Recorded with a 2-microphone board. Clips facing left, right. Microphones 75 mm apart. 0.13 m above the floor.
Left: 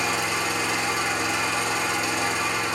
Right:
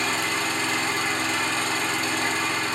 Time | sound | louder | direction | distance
0.0 | an engine running | left 1 dB | 5° left (ahead or behind) | 4 m